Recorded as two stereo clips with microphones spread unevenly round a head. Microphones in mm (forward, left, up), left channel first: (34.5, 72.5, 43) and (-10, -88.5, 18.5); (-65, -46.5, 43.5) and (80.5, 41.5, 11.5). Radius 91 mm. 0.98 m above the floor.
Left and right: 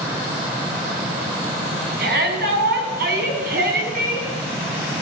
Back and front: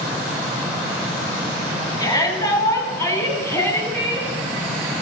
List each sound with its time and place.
2.0 s a shout: 80° right, 10 m; by 4.3 s 70° right, 10.5 m